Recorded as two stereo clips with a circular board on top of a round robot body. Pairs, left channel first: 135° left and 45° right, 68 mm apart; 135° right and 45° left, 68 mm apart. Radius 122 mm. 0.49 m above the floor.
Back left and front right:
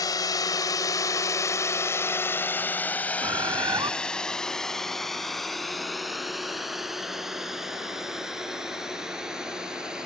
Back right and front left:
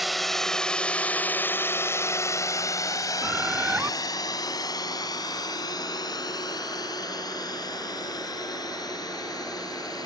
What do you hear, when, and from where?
0.0 s a drone: 135° left; by 10.1 s 125° right
3.2 s a bird: 25° right